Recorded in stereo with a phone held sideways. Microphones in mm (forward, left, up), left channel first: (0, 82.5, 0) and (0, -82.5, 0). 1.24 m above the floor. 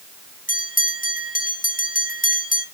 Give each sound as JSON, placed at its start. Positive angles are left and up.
{"t": 0.5, "sound": "a bell", "side_deg": 55, "distance_m": 1.5}